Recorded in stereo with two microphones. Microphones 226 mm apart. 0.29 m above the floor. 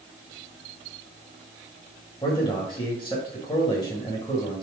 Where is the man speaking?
20° left (ahead or behind), 1.5 m.